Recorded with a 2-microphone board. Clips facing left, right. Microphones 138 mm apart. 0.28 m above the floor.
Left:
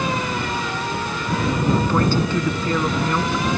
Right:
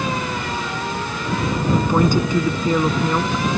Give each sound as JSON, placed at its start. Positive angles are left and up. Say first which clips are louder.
{"t": 1.7, "sound": "a woman speaking", "louder": "right 5 dB", "side_deg": -15}